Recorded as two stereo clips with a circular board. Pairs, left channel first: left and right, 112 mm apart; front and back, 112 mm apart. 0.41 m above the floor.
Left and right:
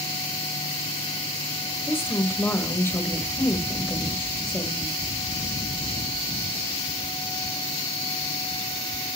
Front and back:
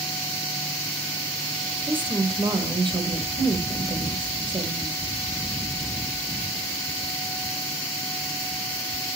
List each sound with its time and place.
1.9 s a woman speaking: 155° left, 2 m